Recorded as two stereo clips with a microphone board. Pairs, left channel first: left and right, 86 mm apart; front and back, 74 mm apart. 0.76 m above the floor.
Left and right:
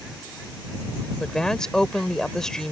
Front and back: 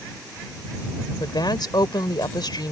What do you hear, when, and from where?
1.2 s a woman speaking: 10° left